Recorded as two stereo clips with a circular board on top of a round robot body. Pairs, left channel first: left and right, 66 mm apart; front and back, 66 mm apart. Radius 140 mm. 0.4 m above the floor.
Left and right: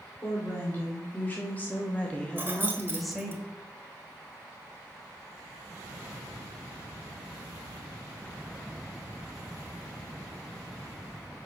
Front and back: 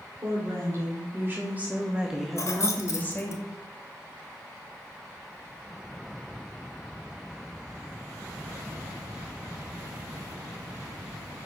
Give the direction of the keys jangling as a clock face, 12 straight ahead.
1 o'clock.